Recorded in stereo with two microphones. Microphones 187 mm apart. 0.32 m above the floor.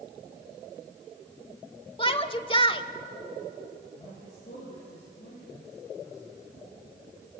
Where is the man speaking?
65° left (ahead or behind), 8 m.